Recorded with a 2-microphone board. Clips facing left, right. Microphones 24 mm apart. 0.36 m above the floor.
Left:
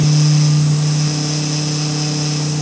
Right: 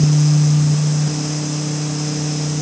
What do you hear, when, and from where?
Only background noise.